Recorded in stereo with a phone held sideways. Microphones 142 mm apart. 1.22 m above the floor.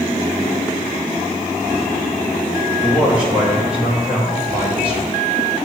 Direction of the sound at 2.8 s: 10° right (ahead or behind).